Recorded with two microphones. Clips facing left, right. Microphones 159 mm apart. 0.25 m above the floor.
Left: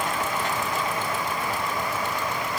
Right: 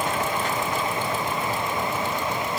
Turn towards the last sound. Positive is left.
No sound to turn to.